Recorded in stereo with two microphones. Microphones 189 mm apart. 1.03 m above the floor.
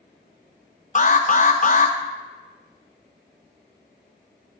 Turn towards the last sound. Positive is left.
turn(degrees=45)  # may be behind; listen again after turning